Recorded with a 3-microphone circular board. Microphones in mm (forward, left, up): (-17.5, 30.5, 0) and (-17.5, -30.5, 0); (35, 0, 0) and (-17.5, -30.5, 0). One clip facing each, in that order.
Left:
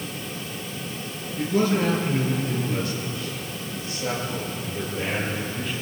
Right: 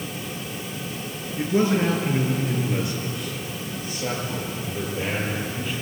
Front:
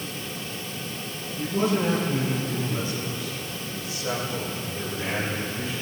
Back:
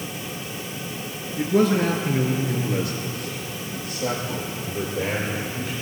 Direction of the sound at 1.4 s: 155° right.